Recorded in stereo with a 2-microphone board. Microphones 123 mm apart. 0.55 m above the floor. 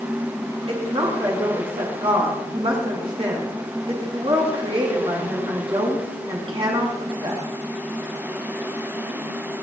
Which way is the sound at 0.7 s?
50° right (ahead or behind).